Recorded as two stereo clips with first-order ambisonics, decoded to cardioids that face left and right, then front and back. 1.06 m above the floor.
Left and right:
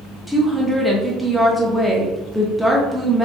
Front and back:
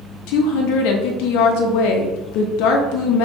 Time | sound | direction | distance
0.3 | a woman speaking | straight ahead | 0.9 m